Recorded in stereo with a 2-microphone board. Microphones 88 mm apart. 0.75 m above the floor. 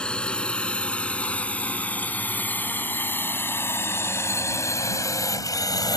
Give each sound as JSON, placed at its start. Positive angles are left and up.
{"t": 0.0, "sound": "a drone", "side_deg": 10}